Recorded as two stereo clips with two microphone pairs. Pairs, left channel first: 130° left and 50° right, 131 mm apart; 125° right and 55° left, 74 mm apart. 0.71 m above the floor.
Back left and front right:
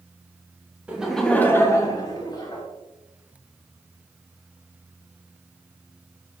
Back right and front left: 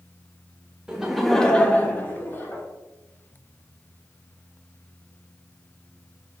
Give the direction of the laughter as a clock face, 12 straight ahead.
12 o'clock.